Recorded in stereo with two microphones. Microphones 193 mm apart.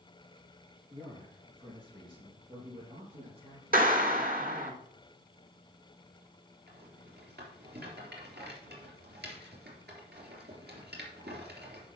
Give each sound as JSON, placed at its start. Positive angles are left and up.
{"t": 0.9, "sound": "a man speaking", "side_deg": -25, "distance_m": 4.5}
{"t": 3.7, "sound": "a clap", "side_deg": -50, "distance_m": 1.4}
{"t": 6.7, "sound": "a rattle", "side_deg": -70, "distance_m": 3.0}